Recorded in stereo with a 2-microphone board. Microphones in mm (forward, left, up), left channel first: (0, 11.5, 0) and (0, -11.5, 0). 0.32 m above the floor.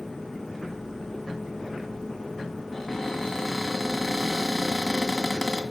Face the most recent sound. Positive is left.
turn(degrees=15)  # may be behind; listen again after turning